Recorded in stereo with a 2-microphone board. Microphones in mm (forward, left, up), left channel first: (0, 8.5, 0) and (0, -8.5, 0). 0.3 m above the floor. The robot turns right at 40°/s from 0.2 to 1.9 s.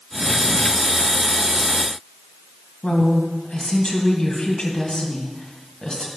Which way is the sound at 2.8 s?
50° left (ahead or behind).